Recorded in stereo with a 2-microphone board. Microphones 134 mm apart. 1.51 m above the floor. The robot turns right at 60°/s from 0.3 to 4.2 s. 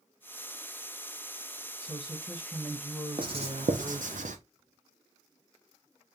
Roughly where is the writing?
Right.